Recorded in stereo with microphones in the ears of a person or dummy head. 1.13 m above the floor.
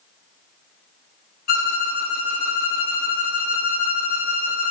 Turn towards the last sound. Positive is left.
turn(degrees=45)  # may be behind; listen again after turning